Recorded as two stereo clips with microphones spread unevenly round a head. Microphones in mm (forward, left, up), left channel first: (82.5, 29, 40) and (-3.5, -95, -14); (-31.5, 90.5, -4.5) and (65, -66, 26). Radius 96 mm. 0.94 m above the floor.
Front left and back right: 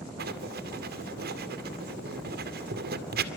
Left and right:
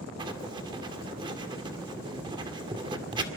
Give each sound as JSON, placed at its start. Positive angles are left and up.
{"t": 0.2, "sound": "writing", "azimuth_deg": -125, "distance_m": 2.0}